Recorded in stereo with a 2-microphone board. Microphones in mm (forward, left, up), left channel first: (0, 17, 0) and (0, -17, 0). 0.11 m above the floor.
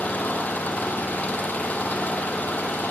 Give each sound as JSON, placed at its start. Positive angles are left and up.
{"t": 0.0, "sound": "an engine running", "side_deg": 50, "distance_m": 1.9}